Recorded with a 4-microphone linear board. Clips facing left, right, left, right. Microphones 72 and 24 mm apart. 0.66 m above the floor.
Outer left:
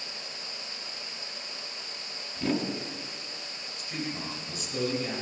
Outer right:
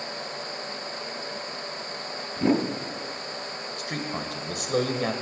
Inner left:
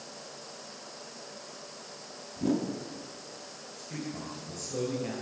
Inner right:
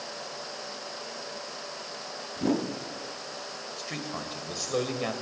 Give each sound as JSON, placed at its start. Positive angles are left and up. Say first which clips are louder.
{"t": 2.4, "sound": "a whoosh", "louder": "outer right 6 dB, inner right 2 dB", "side_deg": -25, "distance_m": 1.3}
{"t": 3.8, "sound": "a man speaking", "louder": "outer right 3 dB, inner right 2 dB", "side_deg": -60, "distance_m": 2.5}